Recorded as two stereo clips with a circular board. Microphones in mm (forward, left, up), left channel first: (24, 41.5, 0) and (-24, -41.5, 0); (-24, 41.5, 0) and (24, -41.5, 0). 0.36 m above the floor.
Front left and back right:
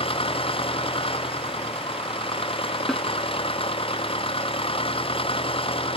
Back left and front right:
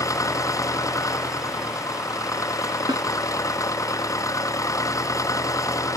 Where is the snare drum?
25° right.